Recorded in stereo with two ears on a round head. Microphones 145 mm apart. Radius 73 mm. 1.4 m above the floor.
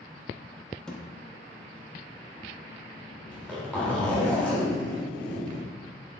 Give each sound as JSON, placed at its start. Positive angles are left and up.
{"t": 0.9, "sound": "a thud", "side_deg": 5, "distance_m": 0.8}
{"t": 3.3, "sound": "a zipper", "side_deg": 5, "distance_m": 2.5}